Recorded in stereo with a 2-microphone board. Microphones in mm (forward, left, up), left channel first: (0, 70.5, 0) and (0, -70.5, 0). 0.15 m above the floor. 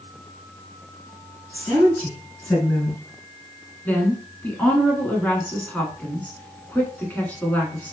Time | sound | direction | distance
1.5 | a woman speaking | 10° left (ahead or behind) | 1.7 m
3.9 | a woman speaking | 10° left (ahead or behind) | 1.3 m